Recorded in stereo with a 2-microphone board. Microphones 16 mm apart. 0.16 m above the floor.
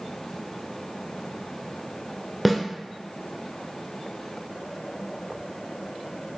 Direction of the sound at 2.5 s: Centre (ahead or behind).